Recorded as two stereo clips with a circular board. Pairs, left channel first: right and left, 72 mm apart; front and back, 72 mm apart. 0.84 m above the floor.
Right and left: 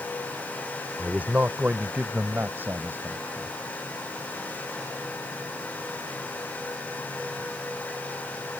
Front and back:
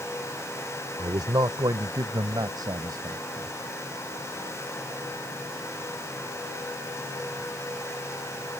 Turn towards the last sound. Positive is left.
turn(degrees=150)